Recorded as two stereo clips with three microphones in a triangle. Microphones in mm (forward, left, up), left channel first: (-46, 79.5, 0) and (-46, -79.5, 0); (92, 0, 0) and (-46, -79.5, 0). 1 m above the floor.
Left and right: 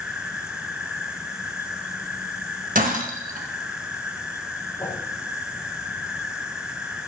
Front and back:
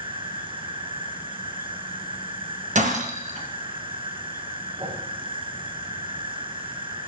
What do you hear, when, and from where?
0.0 s an insect: 170° right, 1.2 m
2.8 s breaking glass: 115° right, 2 m
4.8 s a whoosh: 160° left, 7.5 m